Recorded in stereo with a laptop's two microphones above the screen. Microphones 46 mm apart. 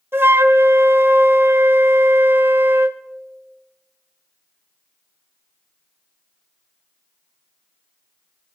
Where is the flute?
55° right (ahead or behind), 0.7 m.